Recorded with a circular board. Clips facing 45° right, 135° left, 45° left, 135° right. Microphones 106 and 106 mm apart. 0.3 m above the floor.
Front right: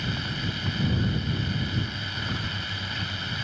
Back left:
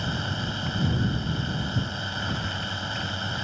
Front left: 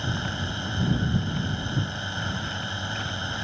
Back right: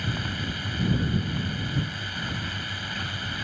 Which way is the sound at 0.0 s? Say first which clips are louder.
Back left 1 dB, front left 1 dB; 95° left.